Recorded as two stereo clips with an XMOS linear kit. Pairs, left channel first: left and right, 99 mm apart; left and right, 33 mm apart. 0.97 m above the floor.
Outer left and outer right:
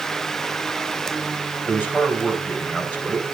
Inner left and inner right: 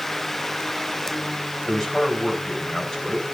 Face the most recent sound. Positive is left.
turn(degrees=20)  # may be behind; listen again after turning